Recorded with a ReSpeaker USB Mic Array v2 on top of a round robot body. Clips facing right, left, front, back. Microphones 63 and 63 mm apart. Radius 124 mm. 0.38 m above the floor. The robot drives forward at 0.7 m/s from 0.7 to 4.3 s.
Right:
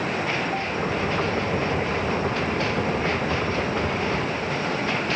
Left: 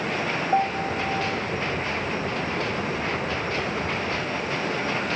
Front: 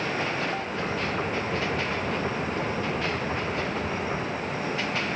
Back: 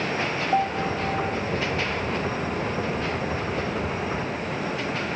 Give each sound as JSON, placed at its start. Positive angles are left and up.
{"t": 0.5, "sound": "a piano", "azimuth_deg": 140}